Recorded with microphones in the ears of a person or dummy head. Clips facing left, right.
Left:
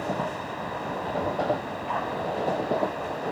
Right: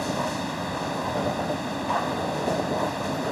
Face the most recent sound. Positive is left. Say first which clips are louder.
# right 2 dB
turn(degrees=-50)  # may be behind; listen again after turning